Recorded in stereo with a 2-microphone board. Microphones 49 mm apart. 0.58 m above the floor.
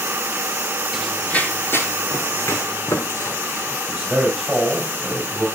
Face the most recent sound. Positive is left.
turn(degrees=-10)  # may be behind; listen again after turning